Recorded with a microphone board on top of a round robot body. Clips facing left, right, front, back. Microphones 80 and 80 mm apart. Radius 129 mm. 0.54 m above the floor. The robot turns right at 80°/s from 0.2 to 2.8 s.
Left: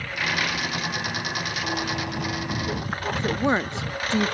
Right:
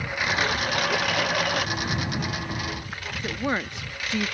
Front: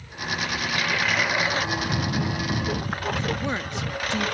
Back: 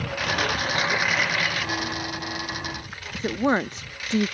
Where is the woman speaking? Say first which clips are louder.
Left 4 dB, back 4 dB; 145° left.